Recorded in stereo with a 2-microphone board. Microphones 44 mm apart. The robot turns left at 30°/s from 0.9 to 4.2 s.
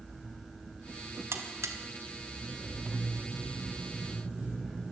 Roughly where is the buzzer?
Right.